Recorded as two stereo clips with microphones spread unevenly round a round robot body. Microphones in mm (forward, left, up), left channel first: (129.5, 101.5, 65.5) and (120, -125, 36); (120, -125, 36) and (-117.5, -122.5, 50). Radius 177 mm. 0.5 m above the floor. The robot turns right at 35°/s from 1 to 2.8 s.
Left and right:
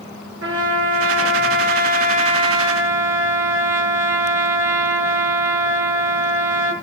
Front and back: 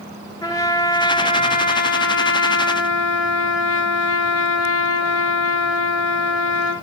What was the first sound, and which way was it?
A trumpet, 75° right.